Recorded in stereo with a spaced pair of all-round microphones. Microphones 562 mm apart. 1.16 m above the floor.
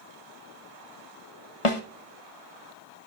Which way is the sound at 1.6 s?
65° left (ahead or behind).